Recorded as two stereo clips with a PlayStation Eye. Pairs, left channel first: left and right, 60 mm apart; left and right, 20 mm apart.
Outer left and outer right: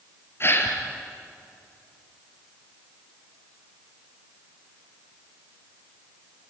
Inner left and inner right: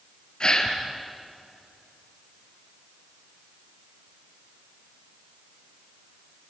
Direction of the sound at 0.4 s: 45° left (ahead or behind).